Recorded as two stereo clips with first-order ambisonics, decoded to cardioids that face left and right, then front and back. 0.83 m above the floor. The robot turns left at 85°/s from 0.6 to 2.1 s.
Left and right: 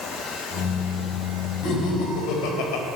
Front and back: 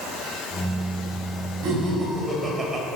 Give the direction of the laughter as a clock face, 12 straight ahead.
7 o'clock.